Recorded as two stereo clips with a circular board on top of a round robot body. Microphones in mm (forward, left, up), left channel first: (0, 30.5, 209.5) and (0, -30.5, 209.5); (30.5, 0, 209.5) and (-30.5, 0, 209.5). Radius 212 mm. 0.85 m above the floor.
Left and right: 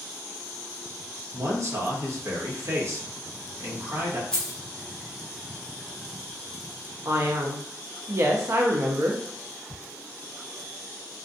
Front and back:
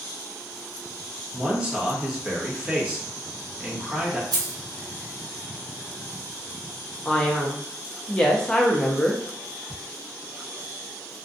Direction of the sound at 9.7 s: 85° right.